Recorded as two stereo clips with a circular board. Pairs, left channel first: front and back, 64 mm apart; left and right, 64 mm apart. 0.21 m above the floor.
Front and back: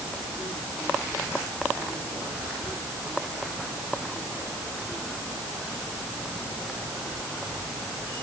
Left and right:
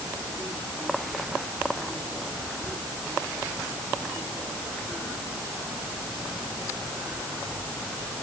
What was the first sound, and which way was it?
Only background noise.